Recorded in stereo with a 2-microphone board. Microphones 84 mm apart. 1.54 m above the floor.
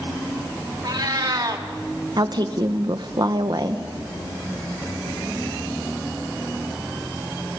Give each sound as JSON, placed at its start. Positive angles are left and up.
{"t": 0.8, "sound": "a cat meowing", "side_deg": -50, "distance_m": 1.6}
{"t": 2.2, "sound": "a woman speaking", "side_deg": -55, "distance_m": 1.1}